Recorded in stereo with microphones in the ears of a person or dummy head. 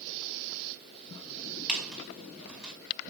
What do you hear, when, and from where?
1.7 s a squeak: 5° right (ahead or behind), 1.9 m